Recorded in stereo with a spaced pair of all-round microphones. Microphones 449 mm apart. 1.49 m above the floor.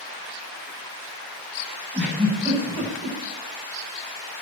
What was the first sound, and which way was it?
A giggle, 5° left (ahead or behind).